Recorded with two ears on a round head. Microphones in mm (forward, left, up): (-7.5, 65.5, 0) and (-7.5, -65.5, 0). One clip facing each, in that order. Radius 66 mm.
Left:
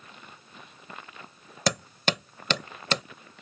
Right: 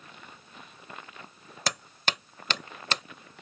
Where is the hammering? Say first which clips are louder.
Left 5 dB; 85° left.